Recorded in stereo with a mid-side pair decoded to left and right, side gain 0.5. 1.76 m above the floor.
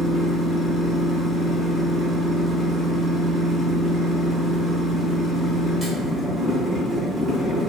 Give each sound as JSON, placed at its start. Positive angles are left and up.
{"t": 0.0, "sound": "a machine running", "azimuth_deg": -35, "distance_m": 1.1}